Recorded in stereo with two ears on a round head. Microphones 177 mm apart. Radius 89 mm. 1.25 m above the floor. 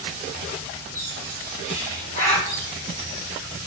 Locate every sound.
0.9 s a bird: 50° right (ahead or behind), 2 m